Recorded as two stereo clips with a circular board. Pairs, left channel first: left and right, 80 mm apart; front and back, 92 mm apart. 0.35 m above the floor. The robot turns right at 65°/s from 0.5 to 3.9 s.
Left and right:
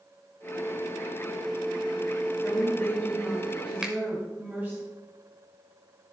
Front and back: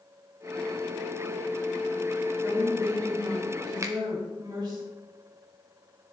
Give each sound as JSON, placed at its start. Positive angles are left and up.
{"t": 2.4, "sound": "a woman speaking", "azimuth_deg": 115, "distance_m": 1.6}
{"t": 3.8, "sound": "a finger snap", "azimuth_deg": -165, "distance_m": 1.0}